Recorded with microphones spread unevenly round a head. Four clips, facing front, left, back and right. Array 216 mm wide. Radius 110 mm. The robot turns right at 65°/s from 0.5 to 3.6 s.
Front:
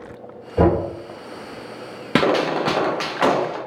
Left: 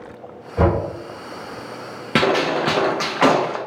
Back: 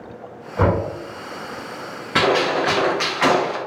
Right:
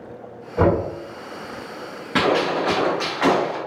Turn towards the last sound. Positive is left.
turn(degrees=110)